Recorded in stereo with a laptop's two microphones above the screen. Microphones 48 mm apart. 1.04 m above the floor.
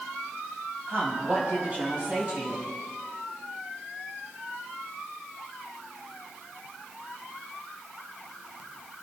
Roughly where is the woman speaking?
Right.